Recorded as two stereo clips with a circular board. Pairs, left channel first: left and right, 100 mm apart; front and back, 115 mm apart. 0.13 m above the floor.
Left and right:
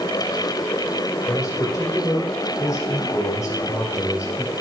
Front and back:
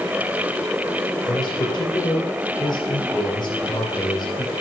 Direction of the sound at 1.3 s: 45° left.